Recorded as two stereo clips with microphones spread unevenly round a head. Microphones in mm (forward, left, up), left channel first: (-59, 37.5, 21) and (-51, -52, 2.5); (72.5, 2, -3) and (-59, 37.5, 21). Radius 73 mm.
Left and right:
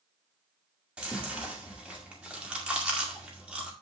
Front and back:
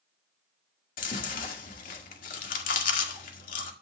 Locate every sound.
1.0 s chewing: 5° left, 1.8 m